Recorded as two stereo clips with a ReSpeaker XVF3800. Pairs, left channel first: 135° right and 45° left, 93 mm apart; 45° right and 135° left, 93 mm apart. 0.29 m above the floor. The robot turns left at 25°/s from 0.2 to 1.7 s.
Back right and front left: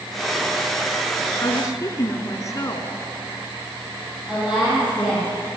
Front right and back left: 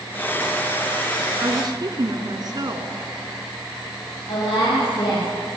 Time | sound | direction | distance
1.4 | a woman speaking | straight behind | 2.5 m
4.3 | a woman speaking | 35° right | 8 m